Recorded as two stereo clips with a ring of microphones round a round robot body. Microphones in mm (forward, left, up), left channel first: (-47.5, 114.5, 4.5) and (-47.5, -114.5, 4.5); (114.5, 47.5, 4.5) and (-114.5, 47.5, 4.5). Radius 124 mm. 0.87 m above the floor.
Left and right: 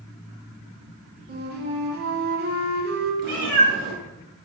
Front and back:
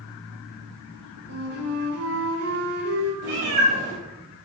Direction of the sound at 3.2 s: 110° right.